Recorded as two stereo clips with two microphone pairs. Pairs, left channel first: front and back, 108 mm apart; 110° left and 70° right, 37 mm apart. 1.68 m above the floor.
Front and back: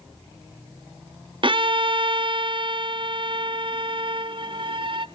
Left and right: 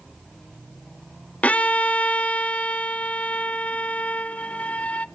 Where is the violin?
155° left, 0.5 m.